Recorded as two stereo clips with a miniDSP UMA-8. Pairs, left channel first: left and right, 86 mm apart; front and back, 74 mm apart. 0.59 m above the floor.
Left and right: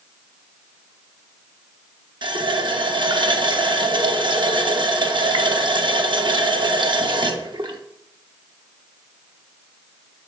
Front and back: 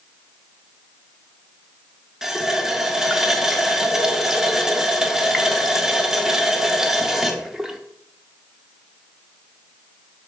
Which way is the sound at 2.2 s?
95° right.